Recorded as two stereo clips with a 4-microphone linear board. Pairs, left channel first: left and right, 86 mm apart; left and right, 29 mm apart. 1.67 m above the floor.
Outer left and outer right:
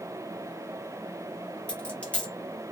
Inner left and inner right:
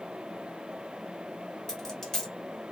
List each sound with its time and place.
1.7 s a dropped coin: 15° left (ahead or behind), 1.1 m